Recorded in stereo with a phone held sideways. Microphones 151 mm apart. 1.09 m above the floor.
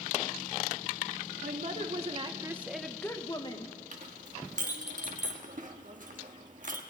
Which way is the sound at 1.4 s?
60° right (ahead or behind).